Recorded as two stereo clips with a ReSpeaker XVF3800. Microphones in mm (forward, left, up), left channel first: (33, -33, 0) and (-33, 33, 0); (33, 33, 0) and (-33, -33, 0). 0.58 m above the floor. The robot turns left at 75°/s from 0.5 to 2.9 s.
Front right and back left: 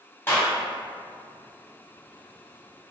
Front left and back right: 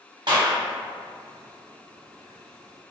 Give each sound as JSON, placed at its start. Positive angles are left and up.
{"t": 0.3, "sound": "a clap", "azimuth_deg": -105, "distance_m": 1.4}